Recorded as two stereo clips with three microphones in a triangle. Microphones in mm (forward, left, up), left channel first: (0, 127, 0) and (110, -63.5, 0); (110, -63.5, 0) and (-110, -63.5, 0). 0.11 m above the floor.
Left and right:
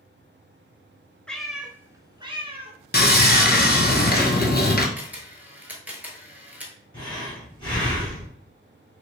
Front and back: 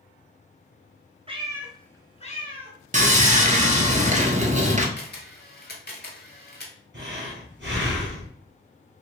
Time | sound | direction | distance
1.3 | a cat meowing | 160° right | 0.7 m
2.9 | sawing | 140° left | 0.6 m
5.0 | a camera shutter | 20° left | 1.0 m
6.9 | breathing | 175° right | 2 m